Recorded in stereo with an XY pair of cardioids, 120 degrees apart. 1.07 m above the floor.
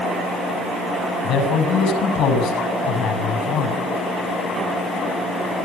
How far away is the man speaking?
About 7 m.